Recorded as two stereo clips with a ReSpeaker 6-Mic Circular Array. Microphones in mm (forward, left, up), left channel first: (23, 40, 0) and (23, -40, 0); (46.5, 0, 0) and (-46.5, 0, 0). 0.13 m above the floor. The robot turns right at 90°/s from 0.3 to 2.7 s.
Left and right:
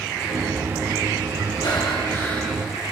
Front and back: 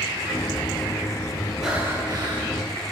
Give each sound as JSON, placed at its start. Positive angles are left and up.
{"t": 1.6, "sound": "breathing", "azimuth_deg": 90, "distance_m": 2.5}